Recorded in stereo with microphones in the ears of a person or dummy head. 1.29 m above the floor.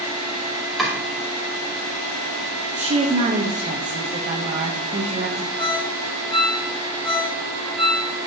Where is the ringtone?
35° left (ahead or behind), 3.5 m.